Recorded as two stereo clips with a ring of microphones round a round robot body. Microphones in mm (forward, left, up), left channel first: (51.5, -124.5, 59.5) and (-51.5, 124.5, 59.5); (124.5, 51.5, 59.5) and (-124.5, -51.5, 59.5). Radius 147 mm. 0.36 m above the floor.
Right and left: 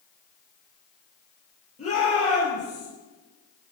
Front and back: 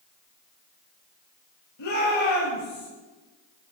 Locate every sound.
1.8 s a shout: straight ahead, 8.5 m